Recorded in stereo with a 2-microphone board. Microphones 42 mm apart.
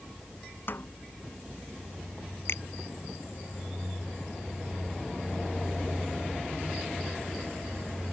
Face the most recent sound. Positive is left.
turn(degrees=65)  # may be behind; listen again after turning